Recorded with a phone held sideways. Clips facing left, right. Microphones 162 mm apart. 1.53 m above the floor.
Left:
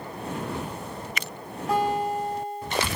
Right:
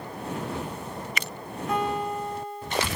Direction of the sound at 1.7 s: 30° left (ahead or behind).